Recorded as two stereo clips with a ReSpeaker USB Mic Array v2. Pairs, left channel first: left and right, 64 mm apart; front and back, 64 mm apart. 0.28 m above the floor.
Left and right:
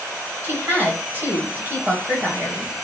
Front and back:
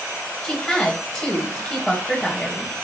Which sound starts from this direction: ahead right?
A woman speaking, at 0.4 s.